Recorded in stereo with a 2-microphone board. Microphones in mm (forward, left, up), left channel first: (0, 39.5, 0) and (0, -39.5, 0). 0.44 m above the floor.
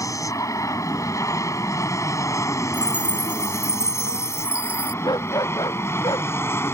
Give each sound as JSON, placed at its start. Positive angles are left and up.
{"t": 0.0, "sound": "an aircraft", "side_deg": 45}
{"t": 2.7, "sound": "a chime", "side_deg": -15}
{"t": 5.0, "sound": "a dog barking", "side_deg": 60}